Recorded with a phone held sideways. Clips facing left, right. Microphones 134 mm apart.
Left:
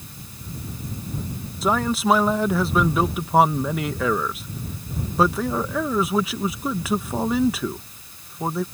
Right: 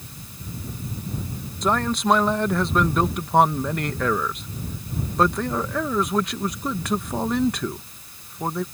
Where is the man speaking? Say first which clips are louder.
Left 1 dB; 5° left (ahead or behind).